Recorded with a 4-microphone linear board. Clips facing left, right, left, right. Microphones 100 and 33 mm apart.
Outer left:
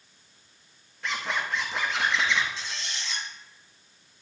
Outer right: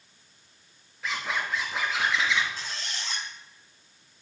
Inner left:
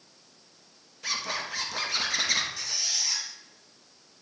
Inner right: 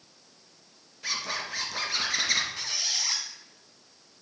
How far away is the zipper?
About 1.5 m.